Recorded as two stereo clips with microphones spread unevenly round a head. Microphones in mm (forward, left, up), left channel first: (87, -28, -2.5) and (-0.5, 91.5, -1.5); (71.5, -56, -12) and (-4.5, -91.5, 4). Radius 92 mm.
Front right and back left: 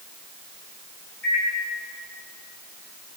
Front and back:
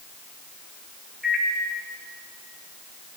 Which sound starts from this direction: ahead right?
A microwave, at 1.2 s.